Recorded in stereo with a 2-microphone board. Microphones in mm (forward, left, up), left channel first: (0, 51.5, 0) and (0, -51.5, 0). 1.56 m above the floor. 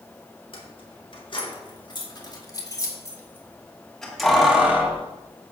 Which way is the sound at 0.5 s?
60° left (ahead or behind).